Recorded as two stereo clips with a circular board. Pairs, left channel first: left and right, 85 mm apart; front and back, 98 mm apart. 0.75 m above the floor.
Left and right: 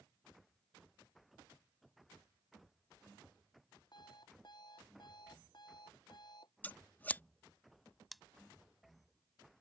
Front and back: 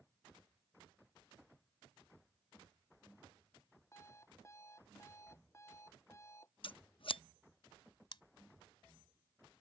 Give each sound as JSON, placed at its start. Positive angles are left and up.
{"t": 3.9, "sound": "an alarm clock", "azimuth_deg": 60}
{"t": 6.6, "sound": "scissors", "azimuth_deg": 20}
{"t": 8.1, "sound": "scissors", "azimuth_deg": 0}